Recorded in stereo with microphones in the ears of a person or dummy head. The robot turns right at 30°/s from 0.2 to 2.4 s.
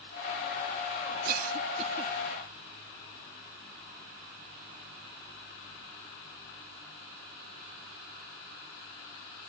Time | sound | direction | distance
1.2 | a cough | 60° right (ahead or behind) | ?